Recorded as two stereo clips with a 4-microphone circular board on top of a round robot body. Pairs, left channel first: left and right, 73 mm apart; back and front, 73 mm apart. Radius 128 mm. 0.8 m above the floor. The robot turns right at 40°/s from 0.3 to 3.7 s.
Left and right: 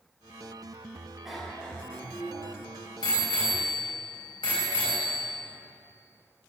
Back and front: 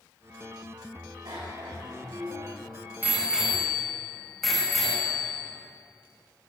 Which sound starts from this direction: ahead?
A bicycle bell, at 1.2 s.